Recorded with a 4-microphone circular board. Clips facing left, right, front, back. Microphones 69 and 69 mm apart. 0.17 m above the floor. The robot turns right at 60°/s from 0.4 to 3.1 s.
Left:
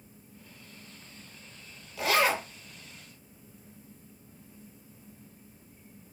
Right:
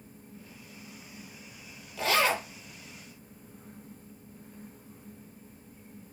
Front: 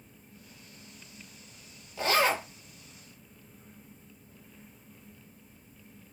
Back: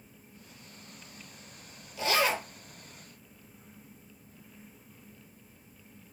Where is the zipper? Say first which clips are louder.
Left 1 dB, front 2 dB; straight ahead, 1.0 m; by 2.5 s 30° left, 1.0 m.